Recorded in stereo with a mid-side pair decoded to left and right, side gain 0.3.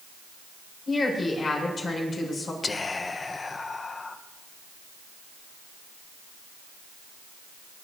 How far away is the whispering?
About 1.3 m.